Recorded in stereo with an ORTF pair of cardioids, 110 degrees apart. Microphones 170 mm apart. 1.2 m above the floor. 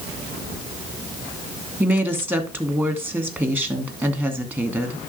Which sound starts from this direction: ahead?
A woman speaking, at 1.8 s.